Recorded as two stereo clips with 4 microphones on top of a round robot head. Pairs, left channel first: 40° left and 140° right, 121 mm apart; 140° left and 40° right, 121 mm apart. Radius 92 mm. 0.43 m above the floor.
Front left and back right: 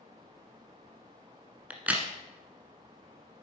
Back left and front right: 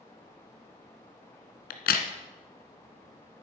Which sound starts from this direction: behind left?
A crack, at 1.7 s.